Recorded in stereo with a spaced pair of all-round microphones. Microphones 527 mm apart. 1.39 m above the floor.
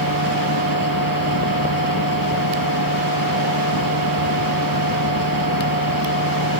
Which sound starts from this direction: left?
A machine running, at 0.0 s.